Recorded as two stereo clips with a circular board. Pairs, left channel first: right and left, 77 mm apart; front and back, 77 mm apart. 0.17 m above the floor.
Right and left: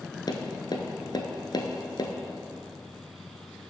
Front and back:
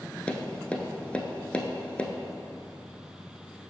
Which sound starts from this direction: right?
Tapping, at 0.3 s.